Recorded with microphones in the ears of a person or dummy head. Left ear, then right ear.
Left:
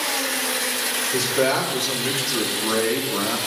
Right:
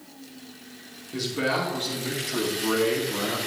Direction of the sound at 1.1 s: 60° left (ahead or behind).